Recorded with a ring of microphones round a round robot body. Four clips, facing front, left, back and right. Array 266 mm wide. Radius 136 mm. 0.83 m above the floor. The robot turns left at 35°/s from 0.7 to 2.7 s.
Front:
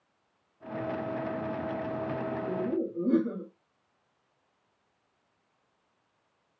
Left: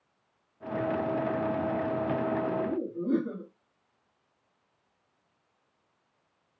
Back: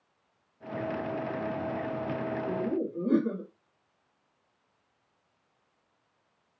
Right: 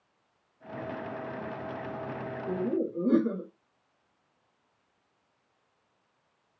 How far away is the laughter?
About 1.3 m.